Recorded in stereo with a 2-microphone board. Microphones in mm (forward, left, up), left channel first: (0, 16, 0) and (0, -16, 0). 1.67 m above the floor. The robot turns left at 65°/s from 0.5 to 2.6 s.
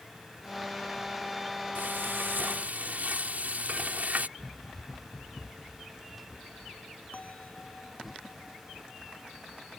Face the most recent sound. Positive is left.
turn(degrees=50)  # may be behind; listen again after turning